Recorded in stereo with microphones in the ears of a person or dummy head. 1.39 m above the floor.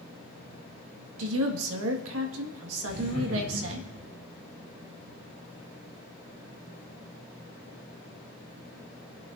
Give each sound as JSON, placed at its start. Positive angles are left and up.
{"t": 1.2, "sound": "a woman speaking", "side_deg": -85, "distance_m": 1.8}
{"t": 2.9, "sound": "laughter", "side_deg": 30, "distance_m": 7.0}